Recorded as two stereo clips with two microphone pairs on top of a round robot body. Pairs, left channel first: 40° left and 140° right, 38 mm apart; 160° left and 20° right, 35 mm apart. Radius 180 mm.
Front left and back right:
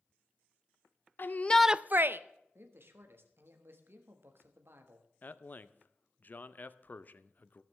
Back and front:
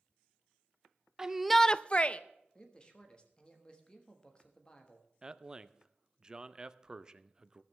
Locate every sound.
1.2 s a shout: 35° left, 0.7 m; by 2.2 s 145° right, 0.8 m
2.5 s a man speaking: 135° right, 1.6 m
5.2 s a man speaking: 20° left, 0.9 m